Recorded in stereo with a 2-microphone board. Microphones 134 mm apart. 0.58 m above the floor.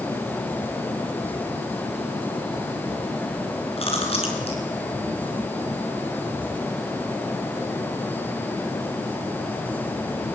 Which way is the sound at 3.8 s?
45° left (ahead or behind).